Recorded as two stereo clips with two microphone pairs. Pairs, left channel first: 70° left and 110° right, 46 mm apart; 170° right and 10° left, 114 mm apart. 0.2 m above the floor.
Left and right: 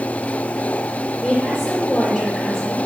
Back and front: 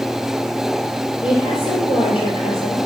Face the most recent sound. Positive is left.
turn(degrees=150)